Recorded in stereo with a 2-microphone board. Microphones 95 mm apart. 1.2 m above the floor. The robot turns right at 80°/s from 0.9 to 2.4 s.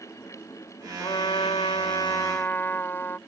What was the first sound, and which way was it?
A trumpet, 45° left.